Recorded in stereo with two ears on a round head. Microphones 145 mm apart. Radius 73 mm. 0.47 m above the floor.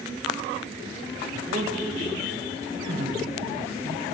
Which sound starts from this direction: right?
A man speaking, at 1.3 s.